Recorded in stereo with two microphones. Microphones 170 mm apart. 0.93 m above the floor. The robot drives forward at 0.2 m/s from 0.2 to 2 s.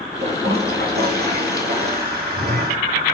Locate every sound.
0.2 s a toilet flushing: 70° right (ahead or behind), 2.5 m